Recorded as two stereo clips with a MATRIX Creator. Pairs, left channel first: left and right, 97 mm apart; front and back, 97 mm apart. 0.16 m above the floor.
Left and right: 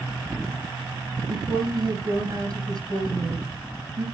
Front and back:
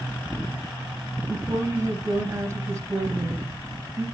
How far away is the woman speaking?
About 2.5 m.